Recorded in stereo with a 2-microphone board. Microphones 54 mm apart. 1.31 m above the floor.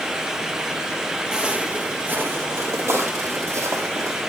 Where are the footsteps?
15° right (ahead or behind), 2.0 m; by 4.2 s 65° right (ahead or behind), 4 m.